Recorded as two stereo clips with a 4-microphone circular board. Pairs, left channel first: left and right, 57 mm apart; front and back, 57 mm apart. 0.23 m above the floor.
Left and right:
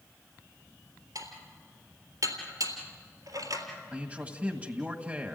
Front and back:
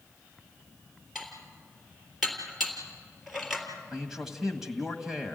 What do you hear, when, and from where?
1.1 s dishes clattering: 90° right, 3.5 m
3.9 s a man speaking: 105° right, 1.5 m